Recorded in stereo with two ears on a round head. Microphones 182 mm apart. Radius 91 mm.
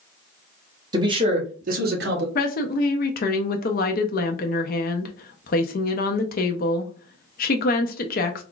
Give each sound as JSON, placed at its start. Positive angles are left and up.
{"t": 0.9, "sound": "a man speaking", "side_deg": -20, "distance_m": 1.3}
{"t": 2.4, "sound": "a woman speaking", "side_deg": 50, "distance_m": 0.6}